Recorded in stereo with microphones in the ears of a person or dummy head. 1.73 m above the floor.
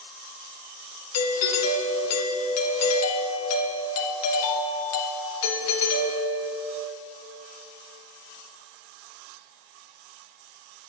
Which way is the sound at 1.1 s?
70° left (ahead or behind).